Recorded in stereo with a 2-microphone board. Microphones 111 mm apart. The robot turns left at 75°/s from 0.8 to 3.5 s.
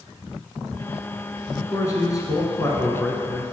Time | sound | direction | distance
1.6 | a man speaking | 140° left | 1.3 m